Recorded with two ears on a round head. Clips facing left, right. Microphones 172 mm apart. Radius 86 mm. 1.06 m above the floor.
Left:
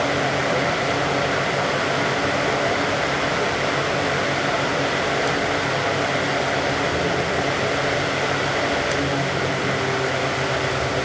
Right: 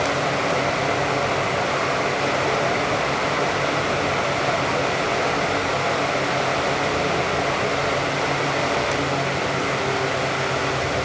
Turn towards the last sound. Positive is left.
No sound to turn to.